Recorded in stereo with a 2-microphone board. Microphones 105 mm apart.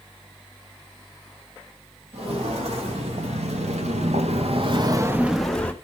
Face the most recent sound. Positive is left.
turn(degrees=15)  # may be behind; listen again after turning